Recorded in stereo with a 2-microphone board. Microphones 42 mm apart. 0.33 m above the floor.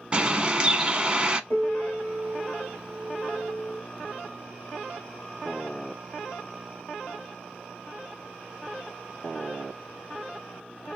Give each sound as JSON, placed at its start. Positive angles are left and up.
{"t": 0.1, "sound": "a bird", "side_deg": -30, "distance_m": 0.6}
{"t": 1.5, "sound": "a piano", "side_deg": 75, "distance_m": 1.3}